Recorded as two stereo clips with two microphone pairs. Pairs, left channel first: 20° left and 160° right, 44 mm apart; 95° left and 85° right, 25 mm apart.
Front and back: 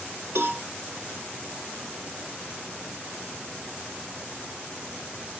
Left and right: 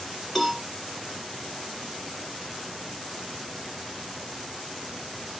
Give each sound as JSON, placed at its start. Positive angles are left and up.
{"t": 0.3, "sound": "a cowbell", "azimuth_deg": 180, "distance_m": 0.8}